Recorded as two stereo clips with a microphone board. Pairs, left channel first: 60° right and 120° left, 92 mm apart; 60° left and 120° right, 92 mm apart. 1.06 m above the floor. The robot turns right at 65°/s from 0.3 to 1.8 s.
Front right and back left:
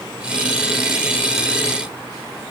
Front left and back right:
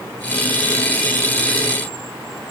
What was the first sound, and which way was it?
Only background noise.